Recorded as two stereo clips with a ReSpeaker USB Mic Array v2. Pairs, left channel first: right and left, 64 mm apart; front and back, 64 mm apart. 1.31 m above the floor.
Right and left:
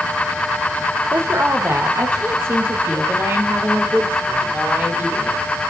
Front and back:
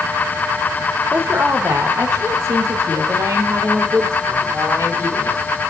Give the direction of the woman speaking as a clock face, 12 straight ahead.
8 o'clock.